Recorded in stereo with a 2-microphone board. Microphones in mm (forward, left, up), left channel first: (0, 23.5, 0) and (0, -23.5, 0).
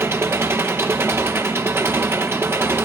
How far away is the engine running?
About 2 m.